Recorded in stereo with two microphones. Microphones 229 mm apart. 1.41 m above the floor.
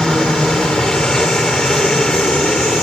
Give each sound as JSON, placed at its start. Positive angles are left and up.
{"t": 0.0, "sound": "a helicopter", "side_deg": 0}